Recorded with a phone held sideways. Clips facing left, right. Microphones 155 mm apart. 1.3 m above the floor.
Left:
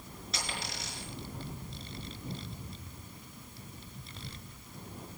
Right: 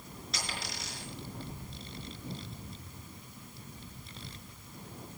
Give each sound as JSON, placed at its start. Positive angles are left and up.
{"t": 0.3, "sound": "a dropped coin", "side_deg": 0, "distance_m": 5.5}